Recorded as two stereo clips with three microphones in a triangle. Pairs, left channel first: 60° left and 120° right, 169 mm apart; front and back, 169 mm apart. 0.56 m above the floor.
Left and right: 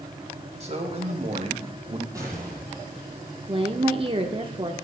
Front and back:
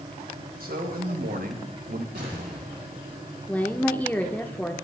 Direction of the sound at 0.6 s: 165° right.